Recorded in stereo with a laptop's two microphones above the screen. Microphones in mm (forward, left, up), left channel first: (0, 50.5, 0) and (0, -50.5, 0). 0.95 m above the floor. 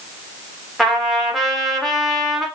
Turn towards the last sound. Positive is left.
turn(degrees=0)  # may be behind; listen again after turning